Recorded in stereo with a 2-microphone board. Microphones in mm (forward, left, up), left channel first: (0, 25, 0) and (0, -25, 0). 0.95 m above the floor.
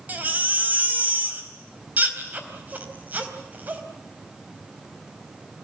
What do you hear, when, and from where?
0.1 s a baby crying: 35° right (ahead or behind), 3.5 m